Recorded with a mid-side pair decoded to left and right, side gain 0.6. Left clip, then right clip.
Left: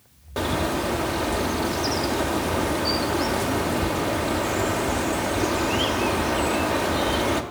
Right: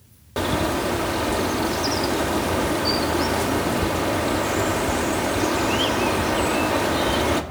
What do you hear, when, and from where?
0.4 s a bird: 10° right, 1.1 m